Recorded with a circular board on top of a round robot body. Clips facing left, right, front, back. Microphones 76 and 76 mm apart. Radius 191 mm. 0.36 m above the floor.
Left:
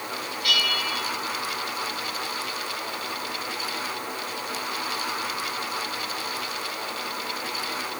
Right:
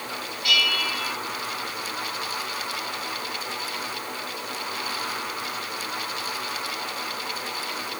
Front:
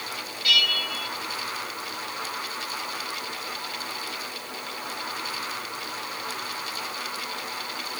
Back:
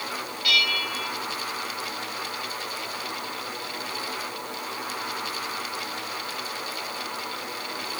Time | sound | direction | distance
0.4 | a bell | 55° left | 3.5 m